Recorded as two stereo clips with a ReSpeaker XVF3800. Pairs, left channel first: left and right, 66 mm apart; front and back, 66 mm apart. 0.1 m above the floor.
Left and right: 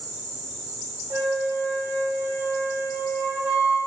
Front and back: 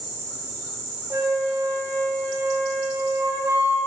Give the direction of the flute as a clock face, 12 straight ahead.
5 o'clock.